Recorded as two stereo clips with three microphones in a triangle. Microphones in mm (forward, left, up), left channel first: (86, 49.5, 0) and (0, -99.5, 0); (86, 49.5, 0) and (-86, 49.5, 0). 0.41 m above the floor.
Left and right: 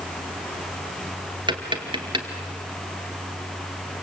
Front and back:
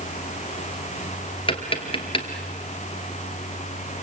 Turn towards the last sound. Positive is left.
turn(degrees=-55)